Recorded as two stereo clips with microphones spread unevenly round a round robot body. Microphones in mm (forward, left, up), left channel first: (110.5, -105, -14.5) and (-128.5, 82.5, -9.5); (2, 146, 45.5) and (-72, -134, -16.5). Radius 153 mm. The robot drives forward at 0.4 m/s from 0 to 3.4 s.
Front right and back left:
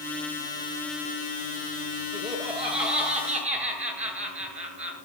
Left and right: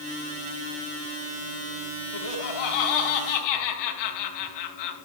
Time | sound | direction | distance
2.1 | laughter | 65° left | 5.5 m